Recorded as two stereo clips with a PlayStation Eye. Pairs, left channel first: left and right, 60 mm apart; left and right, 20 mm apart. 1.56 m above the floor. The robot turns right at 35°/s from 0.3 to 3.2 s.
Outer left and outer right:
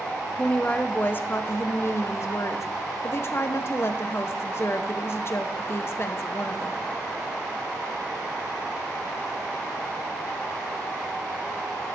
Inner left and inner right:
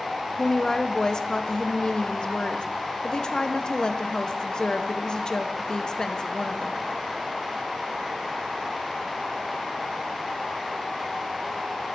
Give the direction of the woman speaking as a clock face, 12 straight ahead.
11 o'clock.